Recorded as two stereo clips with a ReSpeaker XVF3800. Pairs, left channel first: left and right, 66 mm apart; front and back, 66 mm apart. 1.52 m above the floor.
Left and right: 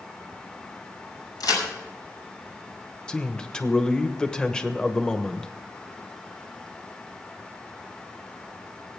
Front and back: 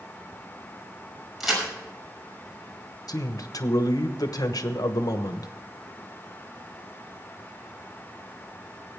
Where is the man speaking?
10° left, 1.1 m.